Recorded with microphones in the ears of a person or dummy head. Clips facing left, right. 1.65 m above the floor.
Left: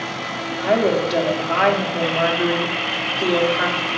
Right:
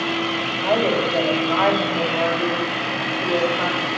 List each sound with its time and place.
0.6 s a woman speaking: 15° left (ahead or behind), 1.3 m